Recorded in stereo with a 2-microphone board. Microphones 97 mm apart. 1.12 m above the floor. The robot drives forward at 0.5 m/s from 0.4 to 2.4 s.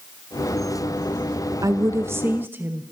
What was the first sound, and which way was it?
A woman speaking, 40° right (ahead or behind).